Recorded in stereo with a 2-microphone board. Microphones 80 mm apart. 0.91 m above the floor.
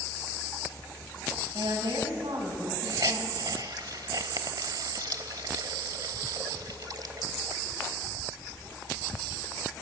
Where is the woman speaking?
75° right (ahead or behind), 6.5 m; by 3.5 s 85° right, 8 m.